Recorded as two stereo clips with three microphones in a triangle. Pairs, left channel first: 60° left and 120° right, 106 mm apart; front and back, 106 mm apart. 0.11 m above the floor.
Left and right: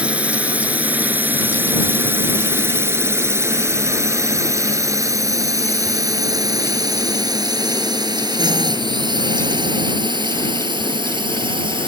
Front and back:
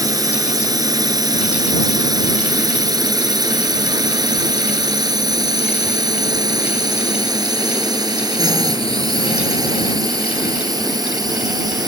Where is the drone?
170° left; by 11.9 s 140° right.